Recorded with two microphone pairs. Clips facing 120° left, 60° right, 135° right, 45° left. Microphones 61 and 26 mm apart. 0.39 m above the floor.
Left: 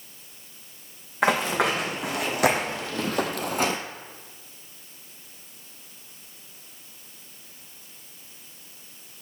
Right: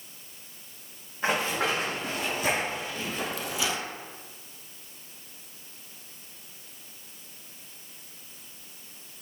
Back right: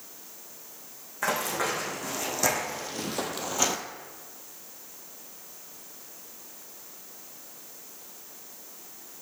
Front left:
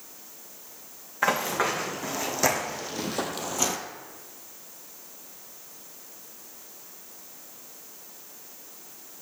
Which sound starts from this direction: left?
Running footsteps, at 1.2 s.